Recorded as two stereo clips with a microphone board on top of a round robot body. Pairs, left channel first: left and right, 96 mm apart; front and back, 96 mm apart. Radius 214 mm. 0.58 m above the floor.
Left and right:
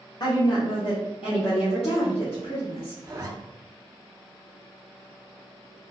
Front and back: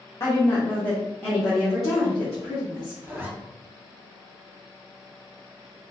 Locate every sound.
0.2 s a woman speaking: 60° left, 0.9 m; by 2.9 s 95° left, 2 m
3.0 s a zipper: 125° right, 1.2 m